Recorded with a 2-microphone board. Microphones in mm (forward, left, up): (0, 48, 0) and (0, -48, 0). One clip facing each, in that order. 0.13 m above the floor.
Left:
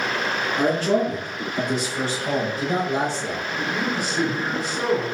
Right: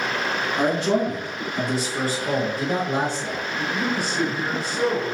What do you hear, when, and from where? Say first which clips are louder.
0.6 s a man speaking: left 1 dB; 15° right (ahead or behind), 1.3 m; by 3.4 s 55° right (ahead or behind), 2.5 m
3.6 s a man speaking: right 1 dB; 15° left (ahead or behind), 1.8 m